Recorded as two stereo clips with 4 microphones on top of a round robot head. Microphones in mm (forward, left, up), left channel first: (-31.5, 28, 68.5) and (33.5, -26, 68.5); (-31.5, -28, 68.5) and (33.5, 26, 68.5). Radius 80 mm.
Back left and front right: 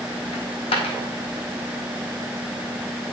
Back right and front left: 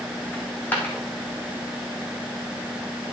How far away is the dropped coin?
About 3 m.